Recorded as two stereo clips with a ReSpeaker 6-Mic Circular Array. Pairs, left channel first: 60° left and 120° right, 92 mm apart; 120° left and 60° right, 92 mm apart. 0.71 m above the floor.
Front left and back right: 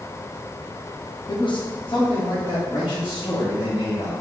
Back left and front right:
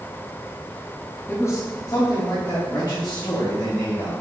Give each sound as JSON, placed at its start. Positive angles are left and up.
{"t": 1.3, "sound": "a man speaking", "azimuth_deg": 60, "distance_m": 0.6}